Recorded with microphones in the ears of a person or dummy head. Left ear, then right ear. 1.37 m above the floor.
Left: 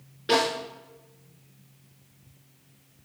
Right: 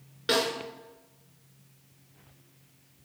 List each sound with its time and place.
0.3 s a snare drum: 35° right (ahead or behind), 4 m